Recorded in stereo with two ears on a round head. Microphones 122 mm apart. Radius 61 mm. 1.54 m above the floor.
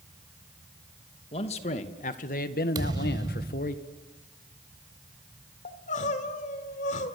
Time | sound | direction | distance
1.3 | a man speaking | 45° left (ahead or behind) | 2.5 m
2.8 | a thud | 30° right (ahead or behind) | 1.5 m
5.7 | crying | 55° left (ahead or behind) | 2 m